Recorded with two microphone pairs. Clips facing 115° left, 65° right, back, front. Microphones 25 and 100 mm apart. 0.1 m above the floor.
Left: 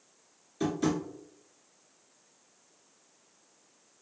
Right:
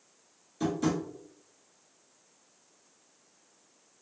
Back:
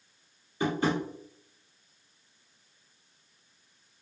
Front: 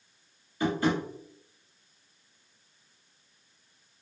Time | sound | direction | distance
0.6 | tapping | 160° left | 1.3 m